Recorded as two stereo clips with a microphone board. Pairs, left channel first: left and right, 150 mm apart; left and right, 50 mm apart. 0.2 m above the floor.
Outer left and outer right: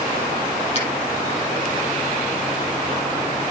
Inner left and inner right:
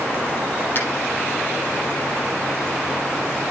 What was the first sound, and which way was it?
A finger snap, 45° left (ahead or behind).